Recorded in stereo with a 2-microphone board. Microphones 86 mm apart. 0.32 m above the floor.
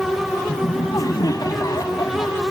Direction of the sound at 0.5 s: 50° left (ahead or behind).